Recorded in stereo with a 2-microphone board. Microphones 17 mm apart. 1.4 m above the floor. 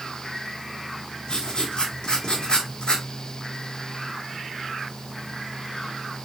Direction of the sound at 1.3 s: 50° left (ahead or behind).